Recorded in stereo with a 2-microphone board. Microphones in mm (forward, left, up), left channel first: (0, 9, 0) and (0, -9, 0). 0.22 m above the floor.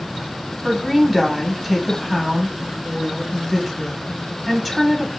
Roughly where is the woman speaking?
Centre.